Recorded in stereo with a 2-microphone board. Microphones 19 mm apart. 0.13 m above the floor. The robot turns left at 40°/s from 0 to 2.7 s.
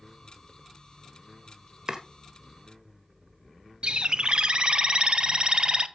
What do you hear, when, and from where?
1.9 s chopping: 40° right (ahead or behind), 1.5 m; by 2.0 s 35° right (ahead or behind), 1.5 m
3.8 s a bird: 55° right (ahead or behind), 0.5 m